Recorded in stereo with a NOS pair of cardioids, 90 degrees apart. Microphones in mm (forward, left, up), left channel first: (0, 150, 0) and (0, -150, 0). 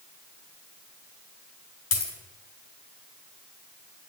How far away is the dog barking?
No dog barking in this recording.